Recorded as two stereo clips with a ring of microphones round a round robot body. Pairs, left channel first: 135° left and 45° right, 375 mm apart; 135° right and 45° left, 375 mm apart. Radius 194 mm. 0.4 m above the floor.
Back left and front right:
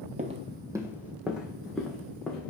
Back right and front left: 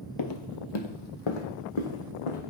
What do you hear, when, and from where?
0.2 s footsteps: 110° right, 0.5 m; by 2.5 s 140° right, 1.9 m